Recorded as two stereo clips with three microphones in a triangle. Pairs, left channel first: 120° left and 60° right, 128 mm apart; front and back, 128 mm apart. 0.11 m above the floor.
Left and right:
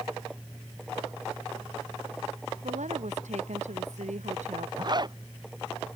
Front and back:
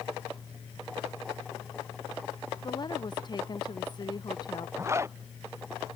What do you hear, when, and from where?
2.6 s a woman speaking: 50° right
4.8 s a zipper: 115° right